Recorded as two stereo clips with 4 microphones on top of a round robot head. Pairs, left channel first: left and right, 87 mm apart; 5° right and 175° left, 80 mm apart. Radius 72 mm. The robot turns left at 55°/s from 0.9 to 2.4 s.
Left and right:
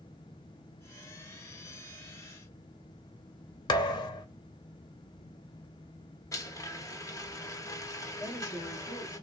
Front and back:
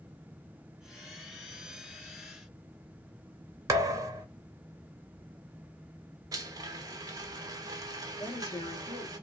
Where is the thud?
125° left, 0.7 m.